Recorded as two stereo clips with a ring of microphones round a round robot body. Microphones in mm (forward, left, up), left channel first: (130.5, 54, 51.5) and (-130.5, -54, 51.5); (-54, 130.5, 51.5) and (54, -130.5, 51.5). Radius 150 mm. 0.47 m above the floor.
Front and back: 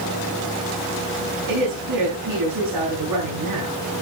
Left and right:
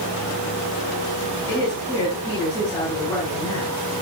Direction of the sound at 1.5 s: 165° right.